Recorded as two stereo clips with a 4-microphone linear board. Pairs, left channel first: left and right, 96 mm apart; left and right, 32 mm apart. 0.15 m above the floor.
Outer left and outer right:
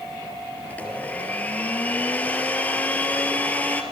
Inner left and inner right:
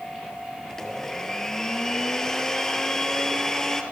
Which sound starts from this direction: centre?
A blender, at 0.7 s.